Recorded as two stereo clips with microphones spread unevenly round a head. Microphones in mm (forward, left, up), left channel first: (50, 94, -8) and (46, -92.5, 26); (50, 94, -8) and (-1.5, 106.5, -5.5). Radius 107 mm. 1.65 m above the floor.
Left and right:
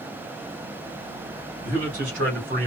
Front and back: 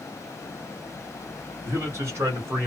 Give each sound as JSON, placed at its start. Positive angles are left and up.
{"t": 1.6, "sound": "a man speaking", "azimuth_deg": -140, "distance_m": 2.0}